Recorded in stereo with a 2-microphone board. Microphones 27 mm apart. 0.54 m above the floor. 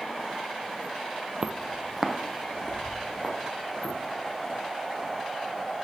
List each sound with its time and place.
1.4 s footsteps: 35° right (ahead or behind), 0.7 m; by 4.0 s 30° left (ahead or behind), 4 m